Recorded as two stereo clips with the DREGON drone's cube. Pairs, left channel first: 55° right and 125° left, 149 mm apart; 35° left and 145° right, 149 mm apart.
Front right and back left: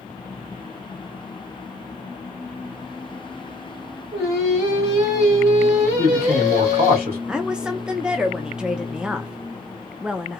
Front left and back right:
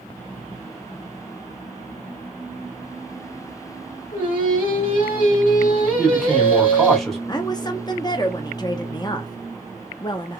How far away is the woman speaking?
About 0.5 m.